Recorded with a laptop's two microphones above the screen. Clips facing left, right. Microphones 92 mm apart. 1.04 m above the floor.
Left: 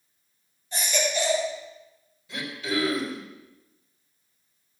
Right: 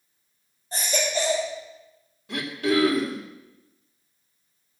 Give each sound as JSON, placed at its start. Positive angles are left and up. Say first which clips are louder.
{"t": 0.7, "sound": "a baby crying", "louder": "right 1 dB", "side_deg": -40, "distance_m": 3.5}
{"t": 2.3, "sound": "throat clearing", "louder": "right 6 dB", "side_deg": -60, "distance_m": 2.5}